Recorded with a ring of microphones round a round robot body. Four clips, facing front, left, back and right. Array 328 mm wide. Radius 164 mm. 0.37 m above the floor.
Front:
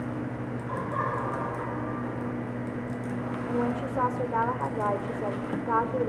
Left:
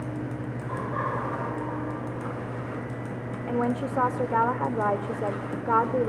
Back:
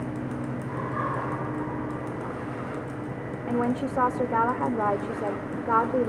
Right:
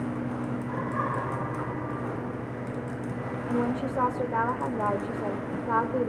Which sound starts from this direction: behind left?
A woman speaking, at 3.5 s.